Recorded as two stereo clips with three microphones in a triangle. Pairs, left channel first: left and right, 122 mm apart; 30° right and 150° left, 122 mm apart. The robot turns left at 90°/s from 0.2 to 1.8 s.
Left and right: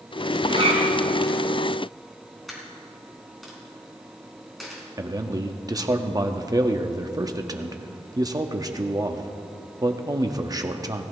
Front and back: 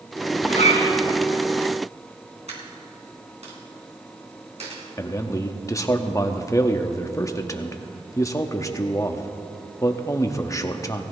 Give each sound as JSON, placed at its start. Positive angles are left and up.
{"t": 0.4, "sound": "a zipper", "azimuth_deg": -30, "distance_m": 3.0}
{"t": 2.5, "sound": "a dropped coin", "azimuth_deg": 180, "distance_m": 3.0}
{"t": 5.0, "sound": "a man speaking", "azimuth_deg": -65, "distance_m": 0.8}